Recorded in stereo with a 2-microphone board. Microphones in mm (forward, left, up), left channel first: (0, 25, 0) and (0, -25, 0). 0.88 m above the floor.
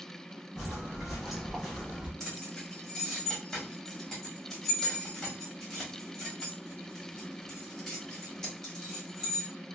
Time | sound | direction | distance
0.6 | footsteps | 10° right (ahead or behind) | 1.8 m
2.2 | keys jangling | 5° left (ahead or behind) | 1.4 m